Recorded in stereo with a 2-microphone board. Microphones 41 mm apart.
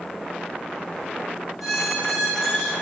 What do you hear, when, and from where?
1.6 s a squeak: 5° right (ahead or behind), 1.5 m